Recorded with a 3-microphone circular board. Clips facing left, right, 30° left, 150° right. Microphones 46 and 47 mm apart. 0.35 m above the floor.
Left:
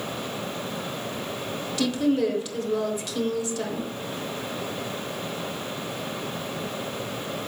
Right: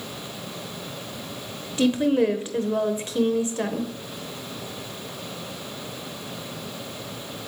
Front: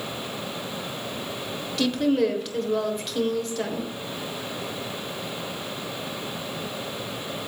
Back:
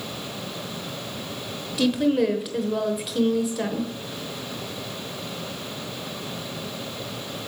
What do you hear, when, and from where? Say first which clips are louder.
1.8 s a woman speaking: right 3 dB, back 1 dB; 70° right, 1.0 m